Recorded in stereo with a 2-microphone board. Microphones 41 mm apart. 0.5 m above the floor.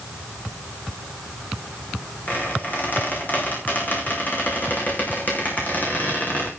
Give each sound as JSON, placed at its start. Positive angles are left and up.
{"t": 2.3, "sound": "a squeak", "side_deg": 45, "distance_m": 5.0}